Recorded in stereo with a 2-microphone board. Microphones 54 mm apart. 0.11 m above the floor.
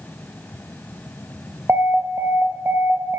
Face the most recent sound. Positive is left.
turn(degrees=-50)  # may be behind; listen again after turning